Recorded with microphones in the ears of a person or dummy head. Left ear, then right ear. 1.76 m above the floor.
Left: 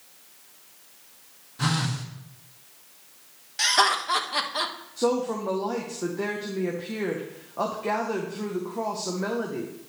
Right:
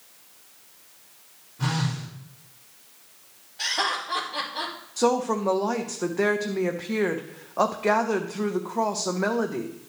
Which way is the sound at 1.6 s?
65° left (ahead or behind).